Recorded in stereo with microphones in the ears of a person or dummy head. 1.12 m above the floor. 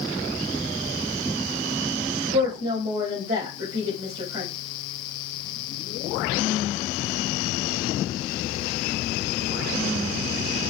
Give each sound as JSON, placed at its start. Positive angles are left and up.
{"t": 2.3, "sound": "a woman speaking", "side_deg": -75, "distance_m": 3.0}